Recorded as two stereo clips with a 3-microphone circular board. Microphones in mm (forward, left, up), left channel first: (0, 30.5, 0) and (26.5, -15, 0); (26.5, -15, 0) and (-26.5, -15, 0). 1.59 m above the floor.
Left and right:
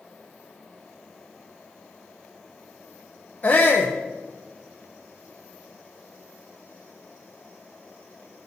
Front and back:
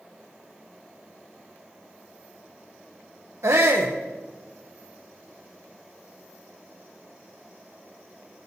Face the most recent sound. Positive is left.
turn(degrees=175)